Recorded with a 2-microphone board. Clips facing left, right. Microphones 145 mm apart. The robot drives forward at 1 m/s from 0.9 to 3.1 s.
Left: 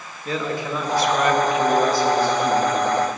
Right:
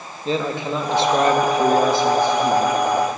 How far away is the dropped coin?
I don't hear a dropped coin.